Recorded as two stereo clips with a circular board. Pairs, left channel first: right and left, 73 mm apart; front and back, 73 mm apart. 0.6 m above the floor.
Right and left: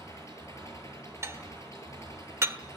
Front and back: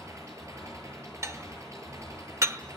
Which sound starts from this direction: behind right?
An engine running, at 0.0 s.